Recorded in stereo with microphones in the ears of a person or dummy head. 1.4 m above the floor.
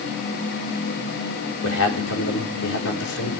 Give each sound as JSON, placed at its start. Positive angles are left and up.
{"t": 1.6, "sound": "a man speaking", "side_deg": 70, "distance_m": 4.0}